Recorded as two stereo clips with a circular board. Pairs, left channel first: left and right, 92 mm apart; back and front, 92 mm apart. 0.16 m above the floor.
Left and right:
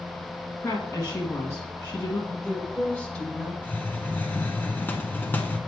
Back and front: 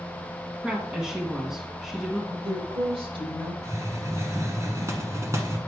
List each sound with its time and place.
0.6 s a woman speaking: 75° left, 1.4 m
2.3 s a woman speaking: 10° left, 4.5 m
3.6 s a hiss: 35° left, 1.0 m